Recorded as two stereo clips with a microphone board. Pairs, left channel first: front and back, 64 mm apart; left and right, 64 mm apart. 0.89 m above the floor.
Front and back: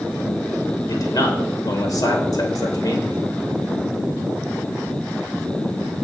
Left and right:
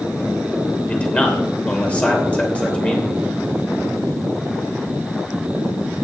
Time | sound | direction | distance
0.9 | a man speaking | 20° left | 3 m